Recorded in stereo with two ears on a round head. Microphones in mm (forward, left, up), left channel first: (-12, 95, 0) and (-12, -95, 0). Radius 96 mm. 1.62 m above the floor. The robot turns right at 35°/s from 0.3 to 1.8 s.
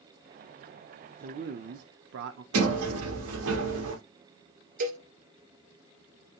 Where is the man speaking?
40° right (ahead or behind), 0.6 m; by 2.4 s 60° right (ahead or behind), 0.6 m.